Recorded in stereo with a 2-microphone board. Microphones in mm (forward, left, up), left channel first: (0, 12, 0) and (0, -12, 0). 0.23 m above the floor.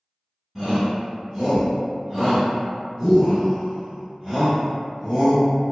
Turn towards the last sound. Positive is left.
turn(degrees=-20)  # may be behind; listen again after turning